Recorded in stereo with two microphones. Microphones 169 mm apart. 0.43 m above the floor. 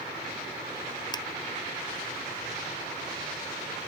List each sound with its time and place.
1.1 s tapping: 25° left (ahead or behind)